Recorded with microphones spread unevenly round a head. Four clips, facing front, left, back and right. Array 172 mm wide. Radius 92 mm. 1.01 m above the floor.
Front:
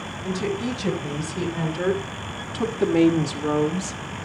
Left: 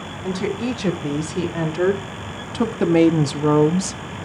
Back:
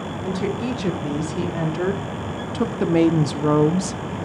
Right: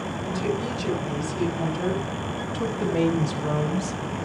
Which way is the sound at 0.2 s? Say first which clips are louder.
Left 5 dB, back 1 dB; 90° left.